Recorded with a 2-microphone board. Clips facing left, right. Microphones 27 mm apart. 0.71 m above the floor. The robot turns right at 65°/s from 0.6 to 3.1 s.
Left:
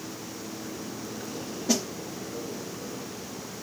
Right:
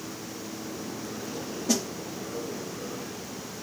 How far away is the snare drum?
About 1.0 m.